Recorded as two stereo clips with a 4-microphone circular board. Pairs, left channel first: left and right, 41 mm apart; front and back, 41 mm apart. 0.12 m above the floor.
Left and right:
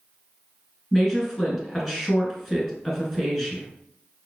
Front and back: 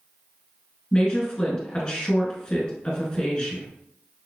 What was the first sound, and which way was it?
A woman speaking, 5° left.